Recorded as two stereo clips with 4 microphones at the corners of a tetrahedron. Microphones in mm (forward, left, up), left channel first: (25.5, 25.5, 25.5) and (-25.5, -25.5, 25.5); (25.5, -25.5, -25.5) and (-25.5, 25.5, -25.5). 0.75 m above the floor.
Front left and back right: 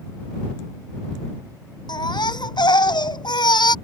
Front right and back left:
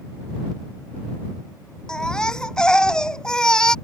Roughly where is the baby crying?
Ahead left.